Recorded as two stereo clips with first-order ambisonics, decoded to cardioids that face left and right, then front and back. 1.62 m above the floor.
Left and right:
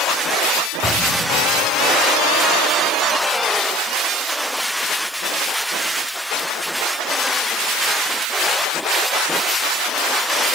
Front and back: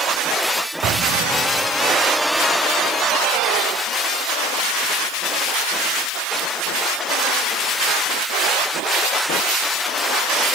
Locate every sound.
0.8 s an explosion: 155° left, 1.6 m